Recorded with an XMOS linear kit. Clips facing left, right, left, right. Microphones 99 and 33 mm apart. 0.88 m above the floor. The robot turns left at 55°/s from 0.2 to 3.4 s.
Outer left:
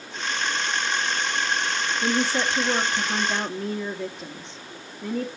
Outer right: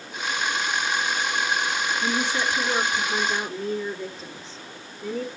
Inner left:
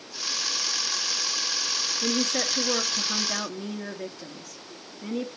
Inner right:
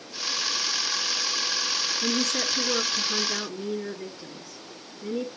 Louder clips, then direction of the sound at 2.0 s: Outer left 4 dB, inner left 1 dB; 155° left.